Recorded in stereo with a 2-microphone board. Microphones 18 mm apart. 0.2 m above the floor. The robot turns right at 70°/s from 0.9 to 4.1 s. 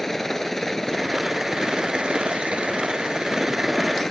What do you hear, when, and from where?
0.0 s a helicopter: 160° left; by 4.1 s 25° left